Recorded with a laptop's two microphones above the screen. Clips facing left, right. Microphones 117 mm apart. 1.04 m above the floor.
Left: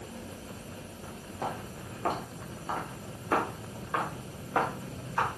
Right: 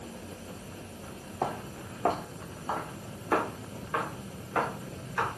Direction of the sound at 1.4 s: 40° right (ahead or behind).